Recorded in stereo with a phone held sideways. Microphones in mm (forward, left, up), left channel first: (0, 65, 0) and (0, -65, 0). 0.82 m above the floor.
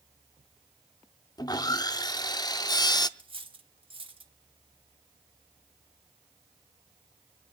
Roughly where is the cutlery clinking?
Right.